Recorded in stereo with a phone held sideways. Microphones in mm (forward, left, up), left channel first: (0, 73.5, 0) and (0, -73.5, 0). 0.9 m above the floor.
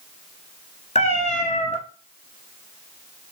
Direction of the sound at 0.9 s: 50° left (ahead or behind).